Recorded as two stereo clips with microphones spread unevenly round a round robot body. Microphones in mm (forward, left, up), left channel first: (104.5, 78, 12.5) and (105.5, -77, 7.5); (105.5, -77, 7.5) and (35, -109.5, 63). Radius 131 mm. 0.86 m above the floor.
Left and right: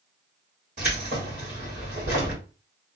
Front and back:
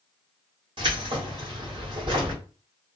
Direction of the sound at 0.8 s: 150° right.